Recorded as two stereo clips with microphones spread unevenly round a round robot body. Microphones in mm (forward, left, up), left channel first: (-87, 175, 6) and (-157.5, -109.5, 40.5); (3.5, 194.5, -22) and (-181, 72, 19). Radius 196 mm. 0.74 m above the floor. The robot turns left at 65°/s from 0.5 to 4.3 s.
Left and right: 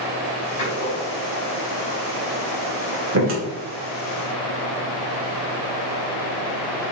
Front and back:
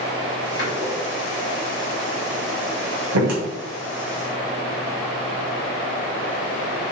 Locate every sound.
0.6 s a door slam: 25° left, 2.5 m; by 3.4 s 160° right, 2.5 m